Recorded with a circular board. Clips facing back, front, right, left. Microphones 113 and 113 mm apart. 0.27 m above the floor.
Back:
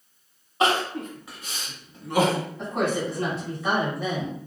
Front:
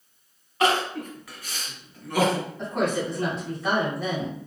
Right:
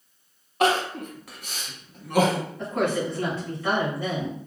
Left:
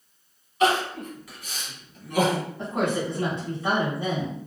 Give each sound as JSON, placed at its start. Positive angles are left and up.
{"t": 0.6, "sound": "crying", "azimuth_deg": -115, "distance_m": 0.6}
{"t": 2.6, "sound": "a woman speaking", "azimuth_deg": 95, "distance_m": 1.2}